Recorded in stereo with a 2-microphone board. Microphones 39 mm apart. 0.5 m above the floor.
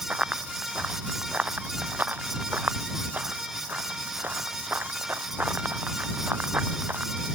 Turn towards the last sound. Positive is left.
turn(degrees=-55)  # may be behind; listen again after turning